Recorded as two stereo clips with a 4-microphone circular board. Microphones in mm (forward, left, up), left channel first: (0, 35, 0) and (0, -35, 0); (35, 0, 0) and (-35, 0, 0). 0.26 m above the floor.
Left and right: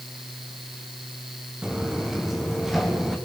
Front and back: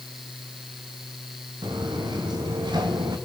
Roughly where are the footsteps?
Behind.